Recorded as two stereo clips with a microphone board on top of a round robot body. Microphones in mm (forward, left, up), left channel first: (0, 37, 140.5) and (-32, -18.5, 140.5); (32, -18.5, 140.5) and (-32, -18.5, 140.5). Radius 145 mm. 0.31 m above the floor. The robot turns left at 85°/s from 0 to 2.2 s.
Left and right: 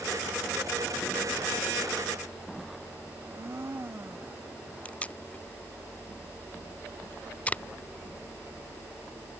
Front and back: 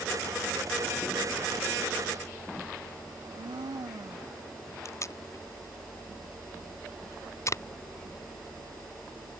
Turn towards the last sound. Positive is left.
turn(degrees=0)